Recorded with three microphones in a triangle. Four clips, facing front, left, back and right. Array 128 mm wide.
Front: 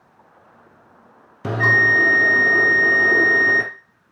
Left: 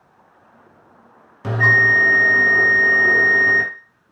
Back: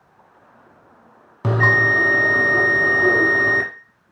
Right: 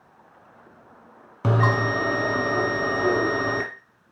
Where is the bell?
140° right, 1.0 m.